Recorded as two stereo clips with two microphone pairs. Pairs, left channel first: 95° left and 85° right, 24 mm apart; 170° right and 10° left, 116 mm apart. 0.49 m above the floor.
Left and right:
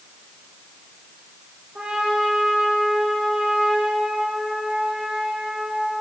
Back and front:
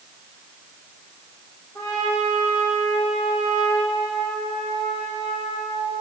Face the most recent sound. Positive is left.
turn(degrees=-105)